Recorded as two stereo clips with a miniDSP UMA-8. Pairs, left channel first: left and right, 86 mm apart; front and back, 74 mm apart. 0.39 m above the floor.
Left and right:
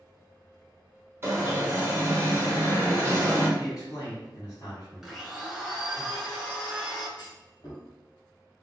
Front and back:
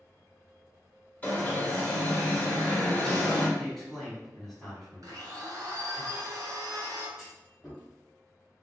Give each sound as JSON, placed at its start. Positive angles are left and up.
{"t": 1.2, "sound": "an alarm", "azimuth_deg": -55, "distance_m": 1.2}
{"t": 3.6, "sound": "a man speaking", "azimuth_deg": 90, "distance_m": 1.9}
{"t": 5.0, "sound": "a blender", "azimuth_deg": -175, "distance_m": 1.7}
{"t": 7.2, "sound": "a clunk", "azimuth_deg": 95, "distance_m": 1.5}